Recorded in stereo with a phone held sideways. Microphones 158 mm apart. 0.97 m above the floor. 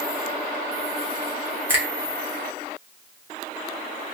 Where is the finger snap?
10° right (ahead or behind), 1.2 m.